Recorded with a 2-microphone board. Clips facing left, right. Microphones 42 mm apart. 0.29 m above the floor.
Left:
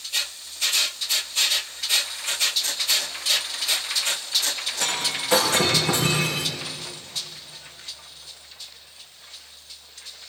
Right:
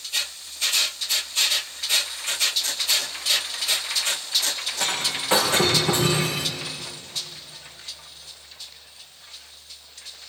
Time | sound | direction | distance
4.8 | breaking glass | 25° right (ahead or behind) | 6.5 m